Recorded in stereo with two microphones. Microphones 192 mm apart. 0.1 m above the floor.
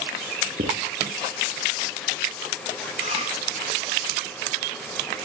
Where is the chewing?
35° right (ahead or behind), 7.5 m.